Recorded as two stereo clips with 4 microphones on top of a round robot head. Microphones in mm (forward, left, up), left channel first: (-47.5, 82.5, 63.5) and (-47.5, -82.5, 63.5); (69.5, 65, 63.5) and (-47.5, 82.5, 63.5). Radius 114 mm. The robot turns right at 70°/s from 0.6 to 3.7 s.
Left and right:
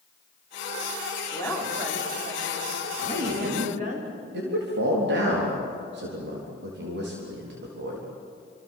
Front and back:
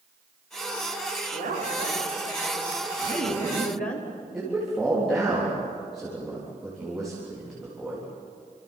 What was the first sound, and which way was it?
A woman speaking, 155° left.